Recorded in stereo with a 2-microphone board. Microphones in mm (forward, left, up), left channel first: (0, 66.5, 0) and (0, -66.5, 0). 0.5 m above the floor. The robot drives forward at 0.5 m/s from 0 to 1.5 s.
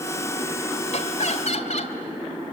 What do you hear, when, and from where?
0.9 s laughter: 60° left (ahead or behind), 2 m